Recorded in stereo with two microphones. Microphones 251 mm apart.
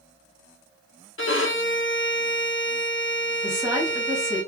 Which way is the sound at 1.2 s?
55° left (ahead or behind).